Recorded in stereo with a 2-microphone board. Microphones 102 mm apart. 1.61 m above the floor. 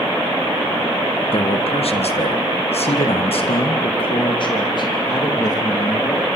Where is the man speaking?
65° left (ahead or behind), 2 m; by 6.2 s 35° left (ahead or behind), 4 m.